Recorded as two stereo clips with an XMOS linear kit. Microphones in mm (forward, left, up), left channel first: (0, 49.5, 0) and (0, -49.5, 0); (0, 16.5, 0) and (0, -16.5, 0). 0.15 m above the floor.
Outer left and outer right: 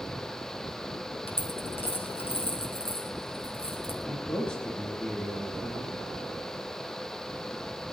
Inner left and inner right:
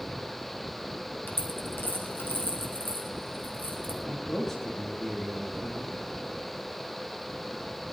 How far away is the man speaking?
About 6.5 m.